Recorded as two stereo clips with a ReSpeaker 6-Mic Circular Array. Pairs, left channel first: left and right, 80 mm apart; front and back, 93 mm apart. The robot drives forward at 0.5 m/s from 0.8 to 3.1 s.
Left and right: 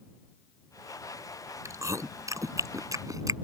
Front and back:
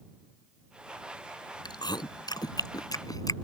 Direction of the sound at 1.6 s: 40° right.